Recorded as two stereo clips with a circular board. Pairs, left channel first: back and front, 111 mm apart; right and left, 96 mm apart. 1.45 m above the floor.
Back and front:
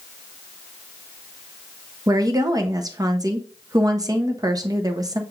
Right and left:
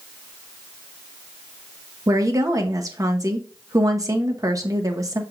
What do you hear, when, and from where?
2.1 s a woman speaking: 45° left, 0.7 m